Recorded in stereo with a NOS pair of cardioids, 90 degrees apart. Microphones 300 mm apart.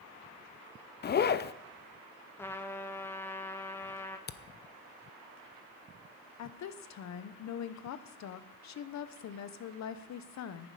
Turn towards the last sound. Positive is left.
turn(degrees=60)